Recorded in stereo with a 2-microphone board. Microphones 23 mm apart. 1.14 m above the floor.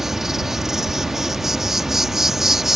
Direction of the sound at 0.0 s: 15° right (ahead or behind).